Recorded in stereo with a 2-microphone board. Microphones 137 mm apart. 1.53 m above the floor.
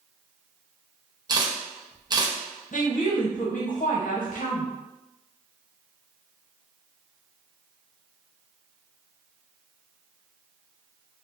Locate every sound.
1.3 s a camera shutter: 30° right (ahead or behind), 0.7 m
2.7 s a woman speaking: 70° left (ahead or behind), 1.0 m